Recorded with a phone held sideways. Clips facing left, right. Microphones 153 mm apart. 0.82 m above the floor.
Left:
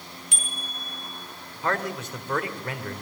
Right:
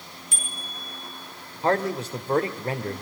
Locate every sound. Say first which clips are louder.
0.3 s a bicycle bell: even; 65° left (ahead or behind), 6 m
1.6 s a man speaking: right 5 dB; 30° right (ahead or behind), 2.5 m